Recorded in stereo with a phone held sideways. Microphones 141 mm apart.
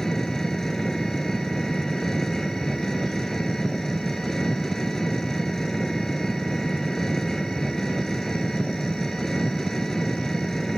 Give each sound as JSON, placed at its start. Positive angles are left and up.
{"t": 0.0, "sound": "an engine running", "side_deg": 0}